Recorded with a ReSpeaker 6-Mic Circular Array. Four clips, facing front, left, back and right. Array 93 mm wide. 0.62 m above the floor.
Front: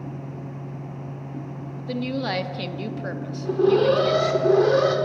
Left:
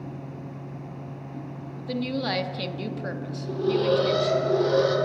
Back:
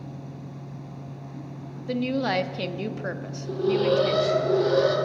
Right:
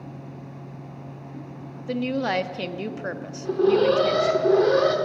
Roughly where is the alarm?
Ahead right.